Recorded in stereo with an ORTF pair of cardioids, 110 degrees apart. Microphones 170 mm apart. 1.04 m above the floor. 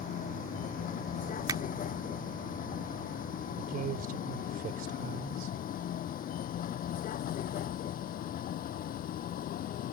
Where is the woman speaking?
65° right.